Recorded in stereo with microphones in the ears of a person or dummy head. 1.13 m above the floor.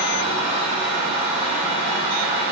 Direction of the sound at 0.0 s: 35° right (ahead or behind).